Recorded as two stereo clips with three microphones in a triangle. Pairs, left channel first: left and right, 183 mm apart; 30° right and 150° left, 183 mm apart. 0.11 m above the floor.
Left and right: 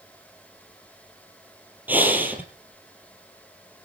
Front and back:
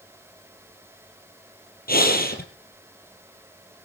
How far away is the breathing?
About 3 m.